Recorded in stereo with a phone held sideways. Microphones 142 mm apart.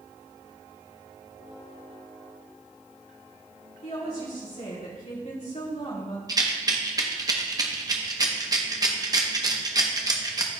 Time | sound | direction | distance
3.8 | a woman speaking | 70° left (ahead or behind) | 3 m
6.3 | a rattle | 30° right (ahead or behind) | 0.8 m